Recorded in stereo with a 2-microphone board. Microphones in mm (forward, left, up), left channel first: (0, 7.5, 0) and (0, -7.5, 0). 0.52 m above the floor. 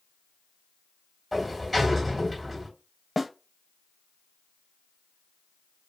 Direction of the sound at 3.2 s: 15° right (ahead or behind).